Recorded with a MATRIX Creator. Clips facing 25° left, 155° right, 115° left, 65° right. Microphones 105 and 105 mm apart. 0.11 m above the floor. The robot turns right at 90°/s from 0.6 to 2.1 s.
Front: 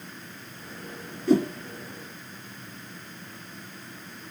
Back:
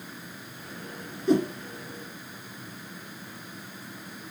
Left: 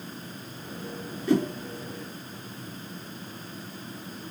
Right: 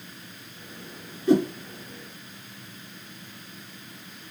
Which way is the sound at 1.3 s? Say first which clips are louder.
Front 1 dB, right 3 dB; 110° right.